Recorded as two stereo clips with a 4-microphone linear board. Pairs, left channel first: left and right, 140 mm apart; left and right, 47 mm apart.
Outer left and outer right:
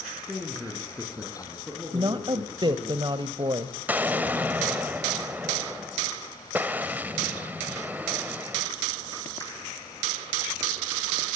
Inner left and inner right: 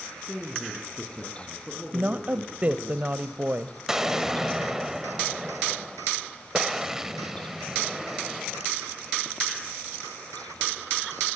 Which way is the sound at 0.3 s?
10° right (ahead or behind).